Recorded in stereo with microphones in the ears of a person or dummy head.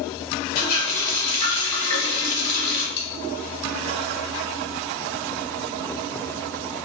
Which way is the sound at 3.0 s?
55° left (ahead or behind).